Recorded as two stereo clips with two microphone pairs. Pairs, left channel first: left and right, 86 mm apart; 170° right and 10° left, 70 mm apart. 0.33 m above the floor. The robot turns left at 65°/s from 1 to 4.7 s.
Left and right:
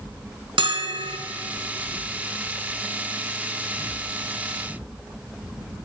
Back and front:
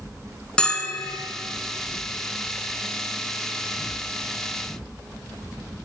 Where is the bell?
95° right, 0.6 m; by 1.2 s 105° right, 0.6 m.